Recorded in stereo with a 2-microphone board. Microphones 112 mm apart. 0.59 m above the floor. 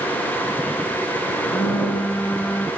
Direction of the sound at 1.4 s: 10° left (ahead or behind).